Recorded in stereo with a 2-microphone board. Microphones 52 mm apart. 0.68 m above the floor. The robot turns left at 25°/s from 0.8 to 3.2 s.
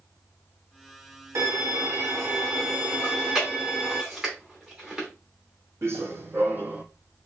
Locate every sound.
1.4 s a violin: 110° right, 1.4 m; by 4.0 s 155° right, 1.4 m
3.0 s chewing: 10° right (ahead or behind), 2 m; by 5.1 s 15° right (ahead or behind), 2 m
5.8 s running footsteps: 55° right (ahead or behind), 1.4 m; by 6.8 s 30° right (ahead or behind), 1.0 m